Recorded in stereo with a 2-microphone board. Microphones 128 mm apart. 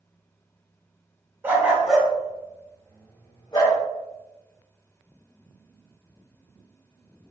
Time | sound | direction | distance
1.4 | a dog barking | 15° right (ahead or behind) | 0.9 m